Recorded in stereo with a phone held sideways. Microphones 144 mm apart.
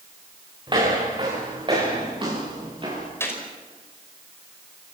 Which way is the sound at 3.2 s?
15° left (ahead or behind).